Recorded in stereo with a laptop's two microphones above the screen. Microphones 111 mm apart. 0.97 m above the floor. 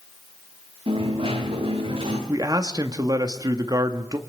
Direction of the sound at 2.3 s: 35° right (ahead or behind).